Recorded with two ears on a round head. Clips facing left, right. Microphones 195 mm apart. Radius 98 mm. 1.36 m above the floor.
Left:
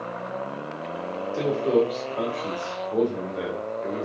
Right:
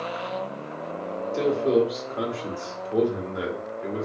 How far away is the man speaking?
About 1.0 m.